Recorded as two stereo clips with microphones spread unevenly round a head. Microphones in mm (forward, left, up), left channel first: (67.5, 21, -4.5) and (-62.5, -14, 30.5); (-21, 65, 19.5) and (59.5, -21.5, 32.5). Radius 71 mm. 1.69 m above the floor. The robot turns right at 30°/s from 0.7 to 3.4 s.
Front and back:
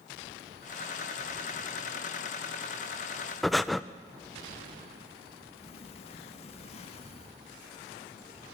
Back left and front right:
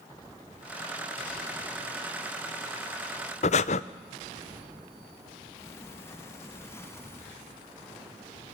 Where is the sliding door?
65° left, 3 m.